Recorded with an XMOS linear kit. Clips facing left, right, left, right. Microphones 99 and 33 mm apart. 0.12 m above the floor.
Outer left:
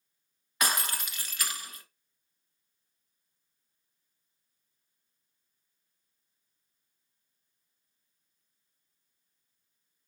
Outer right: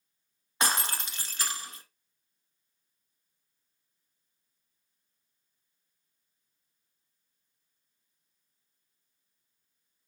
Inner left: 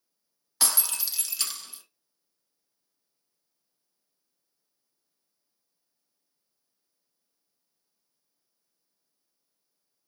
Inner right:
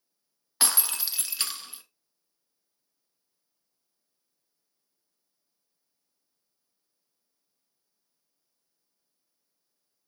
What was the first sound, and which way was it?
Breaking glass, 30° right (ahead or behind).